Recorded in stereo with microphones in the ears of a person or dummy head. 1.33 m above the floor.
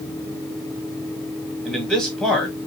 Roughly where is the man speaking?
Centre.